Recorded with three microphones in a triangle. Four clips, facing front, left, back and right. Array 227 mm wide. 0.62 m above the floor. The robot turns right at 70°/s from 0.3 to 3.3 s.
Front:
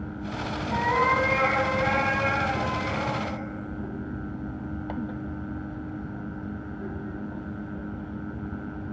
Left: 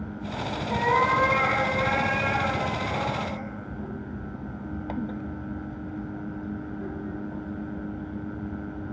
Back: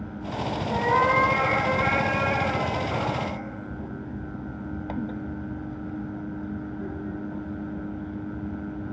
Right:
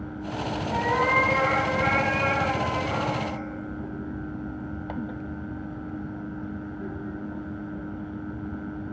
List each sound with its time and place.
0.7 s a cat meowing: 130° left, 0.6 m; by 3.4 s 50° right, 0.6 m